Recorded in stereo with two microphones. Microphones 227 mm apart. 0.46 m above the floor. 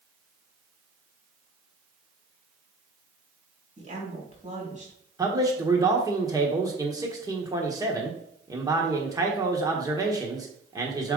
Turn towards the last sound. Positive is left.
turn(degrees=-15)  # may be behind; listen again after turning